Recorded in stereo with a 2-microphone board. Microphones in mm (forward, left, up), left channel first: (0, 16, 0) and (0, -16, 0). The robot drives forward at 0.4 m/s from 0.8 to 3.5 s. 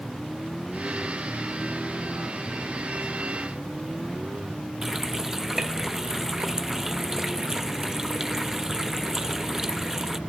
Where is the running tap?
15° right (ahead or behind).